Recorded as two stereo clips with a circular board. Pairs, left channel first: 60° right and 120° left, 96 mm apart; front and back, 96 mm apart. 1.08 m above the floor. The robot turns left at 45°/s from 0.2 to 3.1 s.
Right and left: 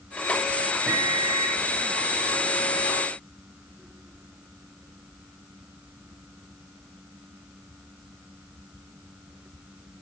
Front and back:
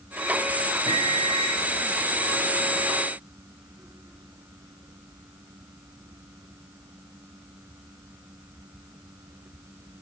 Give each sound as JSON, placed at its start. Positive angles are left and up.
{"t": 0.9, "sound": "a microwave", "azimuth_deg": -160, "distance_m": 1.2}